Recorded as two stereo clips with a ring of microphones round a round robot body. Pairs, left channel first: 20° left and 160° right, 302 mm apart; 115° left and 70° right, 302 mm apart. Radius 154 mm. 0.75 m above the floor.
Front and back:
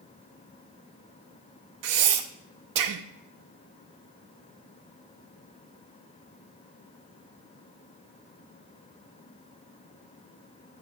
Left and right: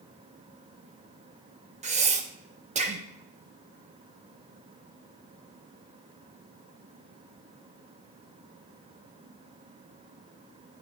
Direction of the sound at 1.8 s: 135° right.